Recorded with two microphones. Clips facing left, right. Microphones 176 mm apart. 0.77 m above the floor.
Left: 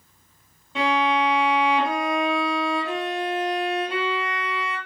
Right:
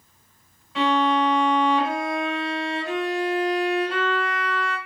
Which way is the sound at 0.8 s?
25° left (ahead or behind).